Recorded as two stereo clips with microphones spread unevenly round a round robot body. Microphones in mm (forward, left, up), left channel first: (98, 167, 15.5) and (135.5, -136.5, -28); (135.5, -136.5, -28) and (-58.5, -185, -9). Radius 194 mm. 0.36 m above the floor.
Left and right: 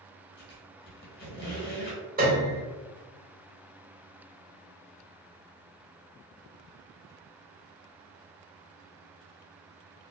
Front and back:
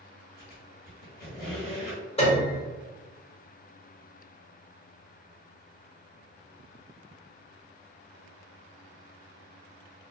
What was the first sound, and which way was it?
A squeak, 40° left.